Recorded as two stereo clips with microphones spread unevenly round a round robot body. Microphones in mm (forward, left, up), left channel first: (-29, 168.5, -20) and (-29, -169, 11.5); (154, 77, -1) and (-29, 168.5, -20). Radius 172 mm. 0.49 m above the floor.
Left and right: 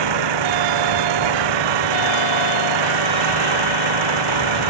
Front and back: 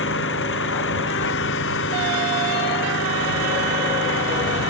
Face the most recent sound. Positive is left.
turn(degrees=-80)